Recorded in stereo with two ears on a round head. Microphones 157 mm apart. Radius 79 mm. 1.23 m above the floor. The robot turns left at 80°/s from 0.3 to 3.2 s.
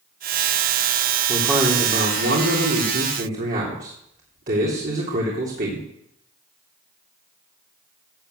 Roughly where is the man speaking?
Ahead.